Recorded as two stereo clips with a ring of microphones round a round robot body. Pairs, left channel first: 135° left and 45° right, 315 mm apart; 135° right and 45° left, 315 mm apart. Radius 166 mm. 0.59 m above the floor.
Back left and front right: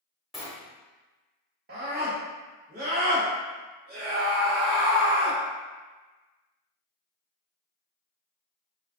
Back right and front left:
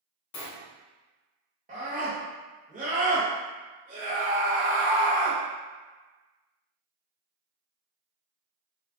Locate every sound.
0.3 s a sliding door: 135° right, 0.9 m
1.7 s a scream: 5° right, 1.0 m